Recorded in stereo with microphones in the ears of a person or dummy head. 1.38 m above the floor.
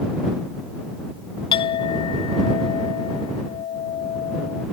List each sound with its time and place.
1.5 s a clink: 30° left (ahead or behind)